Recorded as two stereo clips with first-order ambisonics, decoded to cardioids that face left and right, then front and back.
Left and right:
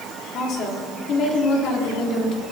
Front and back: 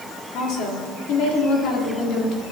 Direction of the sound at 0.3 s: 40° left.